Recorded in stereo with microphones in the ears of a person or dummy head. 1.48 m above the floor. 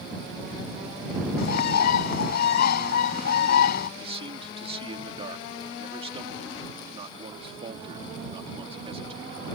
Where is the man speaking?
30° right (ahead or behind).